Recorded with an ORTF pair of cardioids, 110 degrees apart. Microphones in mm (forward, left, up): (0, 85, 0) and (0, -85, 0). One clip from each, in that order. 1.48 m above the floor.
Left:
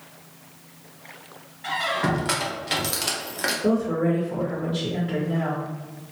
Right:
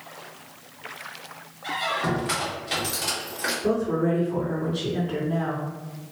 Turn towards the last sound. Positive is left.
turn(degrees=65)